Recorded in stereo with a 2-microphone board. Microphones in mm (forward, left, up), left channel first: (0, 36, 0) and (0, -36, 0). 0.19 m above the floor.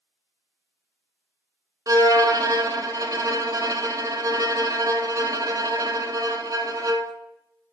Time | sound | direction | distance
1.9 | a violin | 55° right (ahead or behind) | 0.8 m